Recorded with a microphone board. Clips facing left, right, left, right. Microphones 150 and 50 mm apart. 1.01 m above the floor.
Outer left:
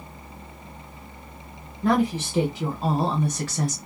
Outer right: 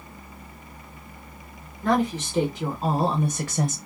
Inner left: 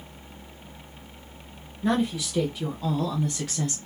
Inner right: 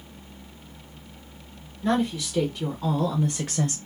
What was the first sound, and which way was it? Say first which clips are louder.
A woman speaking: outer left 1 dB, inner right 1 dB; 15° left (ahead or behind).